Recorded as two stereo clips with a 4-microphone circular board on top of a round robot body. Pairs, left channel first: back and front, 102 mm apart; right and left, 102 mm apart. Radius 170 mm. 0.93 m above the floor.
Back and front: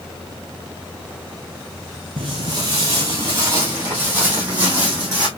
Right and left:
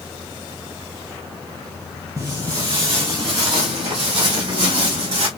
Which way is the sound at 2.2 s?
40° left.